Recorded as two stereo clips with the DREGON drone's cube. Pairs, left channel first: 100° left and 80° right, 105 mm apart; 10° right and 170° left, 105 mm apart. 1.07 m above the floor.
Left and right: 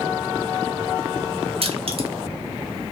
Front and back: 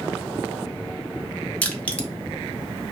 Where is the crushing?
90° right, 0.6 m.